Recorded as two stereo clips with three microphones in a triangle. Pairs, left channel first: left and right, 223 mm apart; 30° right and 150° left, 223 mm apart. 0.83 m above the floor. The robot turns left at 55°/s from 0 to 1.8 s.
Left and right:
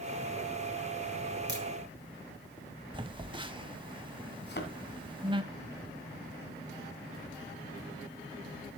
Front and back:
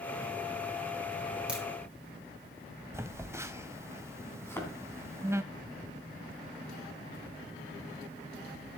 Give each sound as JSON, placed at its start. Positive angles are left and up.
{"t": 1.5, "sound": "a crack", "azimuth_deg": -125, "distance_m": 3.5}
{"t": 2.9, "sound": "a phone buzzing", "azimuth_deg": -140, "distance_m": 0.7}
{"t": 4.4, "sound": "a thud", "azimuth_deg": 50, "distance_m": 2.5}